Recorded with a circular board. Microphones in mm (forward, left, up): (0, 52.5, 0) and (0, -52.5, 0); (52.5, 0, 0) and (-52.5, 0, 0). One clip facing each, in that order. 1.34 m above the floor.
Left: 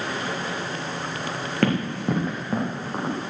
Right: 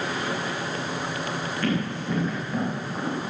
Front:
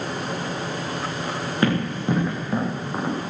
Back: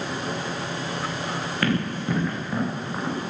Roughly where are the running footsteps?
Ahead left.